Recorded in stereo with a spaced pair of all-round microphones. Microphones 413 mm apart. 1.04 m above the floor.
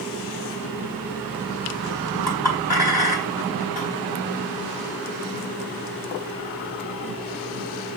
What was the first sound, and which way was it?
A clink, 70° left (ahead or behind).